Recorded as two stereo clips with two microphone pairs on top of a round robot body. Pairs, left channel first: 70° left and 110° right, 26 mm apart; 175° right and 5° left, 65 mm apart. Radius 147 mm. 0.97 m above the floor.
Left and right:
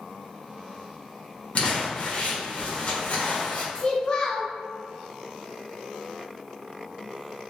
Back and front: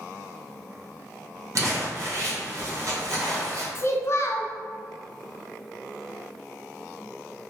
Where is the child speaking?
135° left, 0.7 m.